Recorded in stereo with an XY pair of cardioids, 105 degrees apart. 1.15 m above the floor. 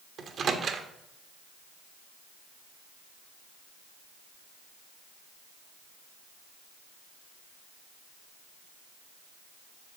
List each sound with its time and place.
0.2 s a microwave: 50° right, 1.3 m